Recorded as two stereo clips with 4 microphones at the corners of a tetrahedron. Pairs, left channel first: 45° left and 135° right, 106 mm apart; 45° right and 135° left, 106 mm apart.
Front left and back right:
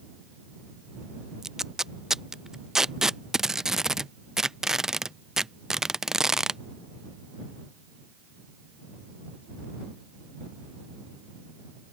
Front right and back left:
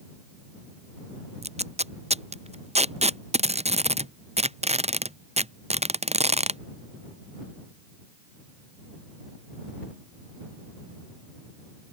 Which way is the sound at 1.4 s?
140° left.